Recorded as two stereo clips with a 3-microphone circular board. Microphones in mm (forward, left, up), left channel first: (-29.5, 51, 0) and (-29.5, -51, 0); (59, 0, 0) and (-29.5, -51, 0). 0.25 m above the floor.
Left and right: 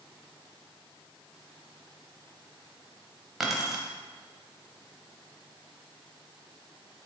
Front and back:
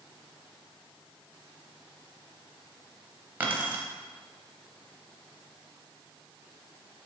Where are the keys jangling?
170° right, 0.7 m.